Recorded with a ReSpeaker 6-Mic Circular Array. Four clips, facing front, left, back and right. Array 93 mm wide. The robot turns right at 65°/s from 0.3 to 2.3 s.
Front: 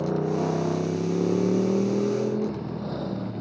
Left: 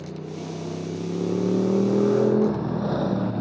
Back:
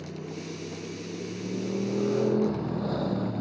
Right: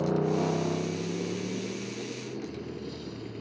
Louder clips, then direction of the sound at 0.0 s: Right 8 dB, front 13 dB; 35° right.